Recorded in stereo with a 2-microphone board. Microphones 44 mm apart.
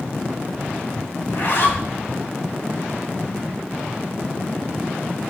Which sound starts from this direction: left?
A zipper, at 1.2 s.